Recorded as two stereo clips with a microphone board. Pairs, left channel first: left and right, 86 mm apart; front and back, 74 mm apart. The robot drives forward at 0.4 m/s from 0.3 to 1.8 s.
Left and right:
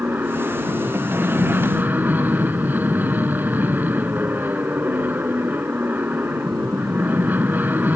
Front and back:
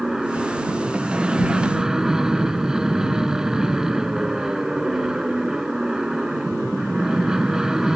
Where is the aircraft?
105° right; by 8.0 s 110° right.